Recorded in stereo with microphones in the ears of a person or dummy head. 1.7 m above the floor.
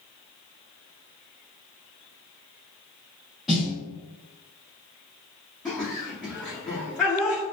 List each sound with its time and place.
3.5 s a snare drum: 5° right (ahead or behind), 1.0 m
5.7 s laughter: 15° left (ahead or behind), 0.6 m